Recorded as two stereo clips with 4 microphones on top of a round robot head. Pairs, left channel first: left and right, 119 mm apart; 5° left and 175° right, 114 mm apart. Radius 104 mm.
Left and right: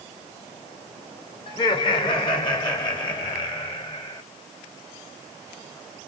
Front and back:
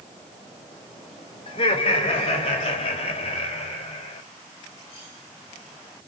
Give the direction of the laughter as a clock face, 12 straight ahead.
11 o'clock.